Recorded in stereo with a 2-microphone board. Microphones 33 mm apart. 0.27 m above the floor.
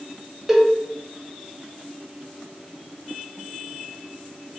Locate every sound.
0.5 s a cowbell: 5° right (ahead or behind), 0.5 m